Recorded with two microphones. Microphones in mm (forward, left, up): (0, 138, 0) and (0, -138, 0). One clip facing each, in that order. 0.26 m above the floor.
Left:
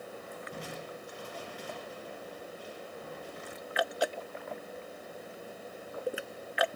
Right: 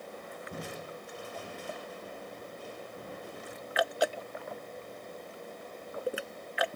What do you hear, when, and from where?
0.5 s crushing: 60° right (ahead or behind), 3.5 m